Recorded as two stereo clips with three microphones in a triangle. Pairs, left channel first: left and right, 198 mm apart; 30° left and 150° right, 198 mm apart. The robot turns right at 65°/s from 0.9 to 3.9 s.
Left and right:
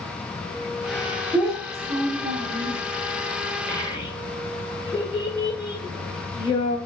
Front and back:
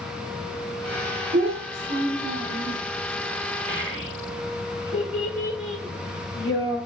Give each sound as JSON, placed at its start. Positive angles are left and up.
{"t": 1.3, "sound": "a child speaking", "azimuth_deg": 170, "distance_m": 1.2}
{"t": 3.7, "sound": "a child speaking", "azimuth_deg": 10, "distance_m": 1.9}